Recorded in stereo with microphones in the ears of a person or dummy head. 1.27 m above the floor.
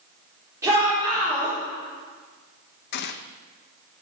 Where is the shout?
15° right (ahead or behind), 4.5 m.